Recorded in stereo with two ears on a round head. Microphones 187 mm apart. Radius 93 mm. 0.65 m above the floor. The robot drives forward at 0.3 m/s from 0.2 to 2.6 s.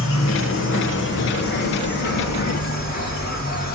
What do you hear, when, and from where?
0.0 s an insect: 70° left (ahead or behind), 1.2 m; by 3.7 s 45° left (ahead or behind), 1.6 m